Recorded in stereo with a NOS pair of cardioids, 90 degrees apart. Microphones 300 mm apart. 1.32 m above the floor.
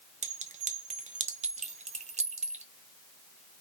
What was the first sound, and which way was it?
A clink, 25° right.